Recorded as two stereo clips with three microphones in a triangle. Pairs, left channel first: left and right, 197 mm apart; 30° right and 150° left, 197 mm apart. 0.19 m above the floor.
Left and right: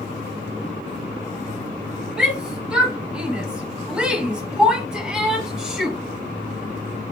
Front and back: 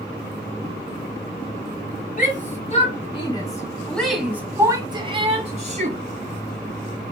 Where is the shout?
5° right, 1.8 m; by 6.0 s 175° right, 1.8 m.